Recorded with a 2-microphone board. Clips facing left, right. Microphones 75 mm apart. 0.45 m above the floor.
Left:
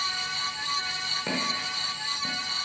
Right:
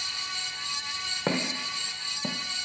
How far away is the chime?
No chime in this recording.